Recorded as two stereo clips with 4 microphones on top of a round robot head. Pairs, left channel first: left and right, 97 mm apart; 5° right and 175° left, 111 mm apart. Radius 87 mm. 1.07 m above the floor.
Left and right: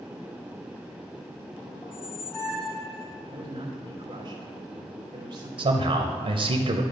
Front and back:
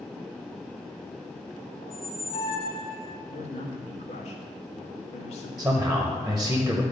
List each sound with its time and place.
1.8 s a squeak: 15° left, 0.8 m
3.3 s a man speaking: 35° right, 1.4 m
5.6 s a man speaking: 100° right, 0.8 m